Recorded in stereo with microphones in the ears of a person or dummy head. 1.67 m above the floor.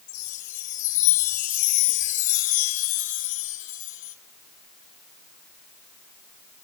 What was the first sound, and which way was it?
A chime, 45° left (ahead or behind).